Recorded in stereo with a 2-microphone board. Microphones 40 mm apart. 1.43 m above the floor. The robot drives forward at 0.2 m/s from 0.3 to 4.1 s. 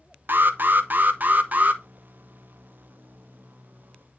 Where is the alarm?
50° right (ahead or behind), 0.6 m; by 1.8 s 35° right (ahead or behind), 0.8 m.